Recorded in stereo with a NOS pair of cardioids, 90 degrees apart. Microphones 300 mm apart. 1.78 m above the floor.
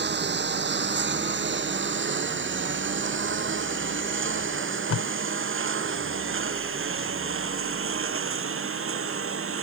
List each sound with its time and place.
0.0 s a lawn mower: 35° right; by 9.6 s 45° right
4.5 s tape being pulled: 50° left